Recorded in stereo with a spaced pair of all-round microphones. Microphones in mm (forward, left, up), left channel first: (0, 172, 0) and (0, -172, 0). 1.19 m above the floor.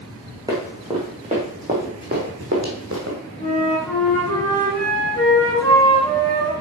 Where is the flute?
10° left (ahead or behind), 4.5 m.